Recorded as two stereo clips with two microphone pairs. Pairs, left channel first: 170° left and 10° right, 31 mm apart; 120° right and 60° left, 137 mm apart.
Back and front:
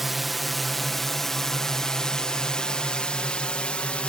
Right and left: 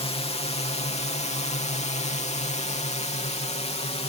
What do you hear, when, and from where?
0.0 s a drone: 90° right; by 4.1 s 150° right